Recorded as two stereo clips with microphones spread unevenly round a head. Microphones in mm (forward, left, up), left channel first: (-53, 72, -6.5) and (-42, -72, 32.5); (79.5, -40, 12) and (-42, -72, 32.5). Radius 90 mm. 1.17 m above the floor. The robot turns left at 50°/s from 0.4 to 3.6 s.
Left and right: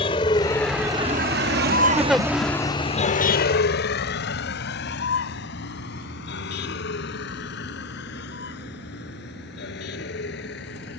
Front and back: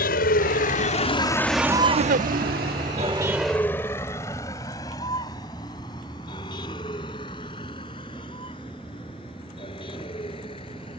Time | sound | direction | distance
0.0 | a vehicle | 30° left | ?
2.0 | a giggle | 165° right | ?